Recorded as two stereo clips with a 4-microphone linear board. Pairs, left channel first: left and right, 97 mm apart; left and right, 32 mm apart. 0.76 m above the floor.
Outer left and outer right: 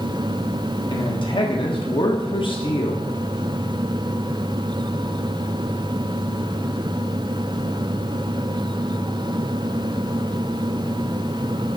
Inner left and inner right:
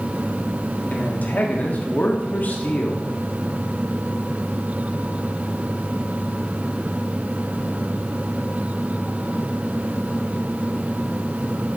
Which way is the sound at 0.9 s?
55° left (ahead or behind).